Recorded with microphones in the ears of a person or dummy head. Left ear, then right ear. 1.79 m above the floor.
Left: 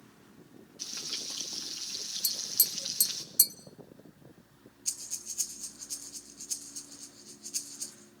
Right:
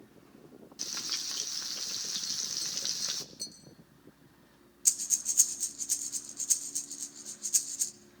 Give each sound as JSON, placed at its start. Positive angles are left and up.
{"t": 0.8, "sound": "frying", "side_deg": -35, "distance_m": 1.5}
{"t": 2.2, "sound": "tapping", "side_deg": 60, "distance_m": 1.2}
{"t": 4.8, "sound": "breathing", "side_deg": -55, "distance_m": 1.3}